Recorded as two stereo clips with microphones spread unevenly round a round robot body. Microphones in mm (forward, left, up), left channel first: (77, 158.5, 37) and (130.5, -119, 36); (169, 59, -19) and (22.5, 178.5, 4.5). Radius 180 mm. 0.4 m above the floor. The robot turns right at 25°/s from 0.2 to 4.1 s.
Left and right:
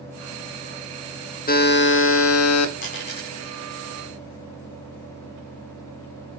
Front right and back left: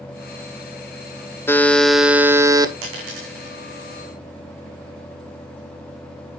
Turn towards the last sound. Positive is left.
turn(degrees=-160)